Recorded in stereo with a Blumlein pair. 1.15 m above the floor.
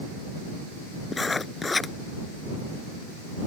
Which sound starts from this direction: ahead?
Writing, at 1.1 s.